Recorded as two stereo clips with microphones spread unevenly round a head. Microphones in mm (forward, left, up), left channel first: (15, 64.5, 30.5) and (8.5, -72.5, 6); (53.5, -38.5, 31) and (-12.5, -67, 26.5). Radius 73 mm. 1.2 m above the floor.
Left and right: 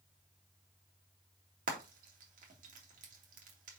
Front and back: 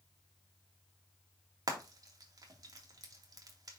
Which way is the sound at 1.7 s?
120° right.